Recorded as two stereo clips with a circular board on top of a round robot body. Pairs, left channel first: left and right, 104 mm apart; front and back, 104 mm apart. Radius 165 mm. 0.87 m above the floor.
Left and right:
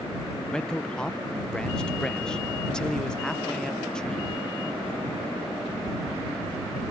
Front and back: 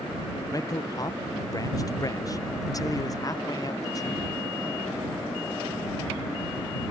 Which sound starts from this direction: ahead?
A man speaking, at 0.5 s.